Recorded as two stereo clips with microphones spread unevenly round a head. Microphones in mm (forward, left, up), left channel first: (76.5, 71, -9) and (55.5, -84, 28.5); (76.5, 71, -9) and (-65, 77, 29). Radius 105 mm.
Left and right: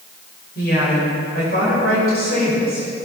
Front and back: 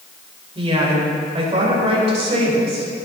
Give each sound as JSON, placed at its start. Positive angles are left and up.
{"t": 0.6, "sound": "a woman speaking", "azimuth_deg": 130, "distance_m": 4.5}